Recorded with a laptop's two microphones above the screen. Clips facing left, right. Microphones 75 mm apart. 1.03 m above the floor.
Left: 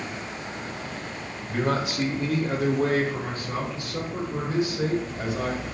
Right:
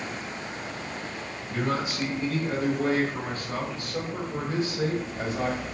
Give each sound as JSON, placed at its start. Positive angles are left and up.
{"t": 1.5, "sound": "a man speaking", "side_deg": 55, "distance_m": 1.3}